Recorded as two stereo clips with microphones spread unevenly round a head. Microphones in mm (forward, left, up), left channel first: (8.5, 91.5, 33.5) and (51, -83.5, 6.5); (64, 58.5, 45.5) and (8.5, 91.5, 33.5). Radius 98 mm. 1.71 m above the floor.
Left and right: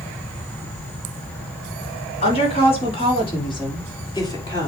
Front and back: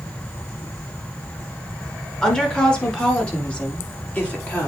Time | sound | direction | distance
2.2 | a woman speaking | 50° left | 3.5 m